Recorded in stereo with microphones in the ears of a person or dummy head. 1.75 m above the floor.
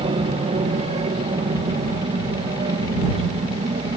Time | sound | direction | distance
0.0 | an aircraft | 25° right (ahead or behind) | ?